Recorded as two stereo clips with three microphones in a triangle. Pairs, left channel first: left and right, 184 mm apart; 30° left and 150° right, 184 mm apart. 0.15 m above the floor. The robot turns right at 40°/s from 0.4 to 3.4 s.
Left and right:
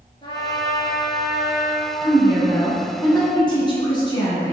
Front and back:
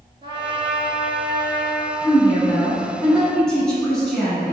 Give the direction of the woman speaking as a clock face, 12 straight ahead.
10 o'clock.